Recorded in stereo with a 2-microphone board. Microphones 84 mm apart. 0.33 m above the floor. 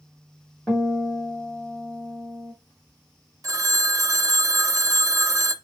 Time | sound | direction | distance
0.7 | a guitar | 15° left (ahead or behind) | 1.9 m
3.4 | a phone ringing | 40° right (ahead or behind) | 0.6 m